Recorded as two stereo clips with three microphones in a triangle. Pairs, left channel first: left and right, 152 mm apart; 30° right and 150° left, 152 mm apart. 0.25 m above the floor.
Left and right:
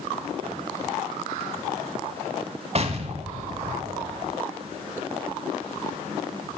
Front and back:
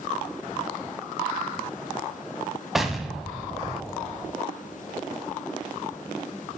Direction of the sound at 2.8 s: 120° right.